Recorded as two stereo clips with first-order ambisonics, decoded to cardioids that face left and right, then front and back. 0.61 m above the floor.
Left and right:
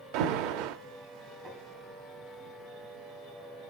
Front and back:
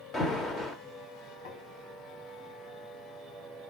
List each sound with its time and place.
0.1 s an alarm: 75° right, 1.0 m
1.4 s tapping: 25° right, 4 m